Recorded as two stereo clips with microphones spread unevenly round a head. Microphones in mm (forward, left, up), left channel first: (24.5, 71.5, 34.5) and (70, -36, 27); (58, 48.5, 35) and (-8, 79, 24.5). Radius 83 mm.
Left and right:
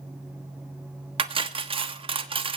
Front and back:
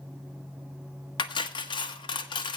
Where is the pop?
I don't hear a pop.